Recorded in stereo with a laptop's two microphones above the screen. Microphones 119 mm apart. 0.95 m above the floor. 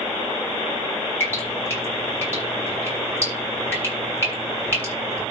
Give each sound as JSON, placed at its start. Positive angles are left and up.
{"t": 1.2, "sound": "dripping", "side_deg": 20, "distance_m": 7.5}